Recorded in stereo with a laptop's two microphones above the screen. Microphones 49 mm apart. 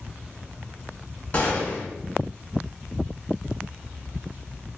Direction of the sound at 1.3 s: 35° left (ahead or behind).